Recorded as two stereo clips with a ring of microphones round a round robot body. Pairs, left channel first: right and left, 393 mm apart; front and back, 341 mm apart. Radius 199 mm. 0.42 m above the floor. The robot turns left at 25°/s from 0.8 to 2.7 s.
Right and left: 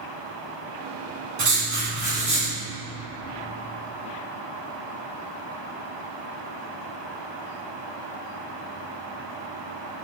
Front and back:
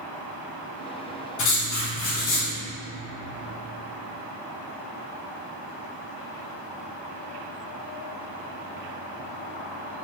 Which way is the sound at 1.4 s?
40° left.